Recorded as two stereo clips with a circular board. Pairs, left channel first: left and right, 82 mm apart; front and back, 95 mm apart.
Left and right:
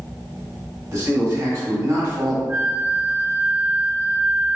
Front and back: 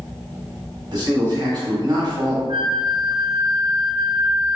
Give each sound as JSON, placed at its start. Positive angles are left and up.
{"t": 0.9, "sound": "a man speaking", "azimuth_deg": -140, "distance_m": 1.3}
{"t": 2.5, "sound": "a flute", "azimuth_deg": -145, "distance_m": 0.6}